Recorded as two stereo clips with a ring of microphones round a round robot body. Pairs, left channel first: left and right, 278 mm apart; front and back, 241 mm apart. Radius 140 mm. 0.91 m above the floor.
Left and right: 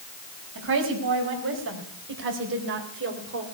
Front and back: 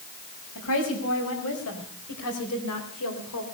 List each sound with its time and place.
0.6 s a woman speaking: 45° right, 5 m; by 3.4 s 40° right, 3 m